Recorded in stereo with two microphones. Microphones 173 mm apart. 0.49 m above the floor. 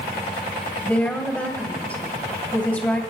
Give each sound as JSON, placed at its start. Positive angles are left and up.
{"t": 0.8, "sound": "a woman speaking", "side_deg": 10, "distance_m": 2.5}